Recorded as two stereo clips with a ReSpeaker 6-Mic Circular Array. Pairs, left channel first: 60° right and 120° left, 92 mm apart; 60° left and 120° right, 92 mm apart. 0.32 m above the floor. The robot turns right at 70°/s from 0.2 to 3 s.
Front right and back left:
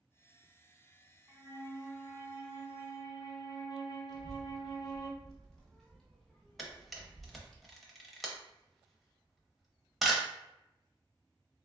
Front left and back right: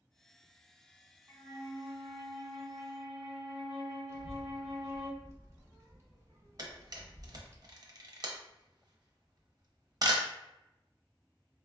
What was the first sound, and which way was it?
A flute, 175° right.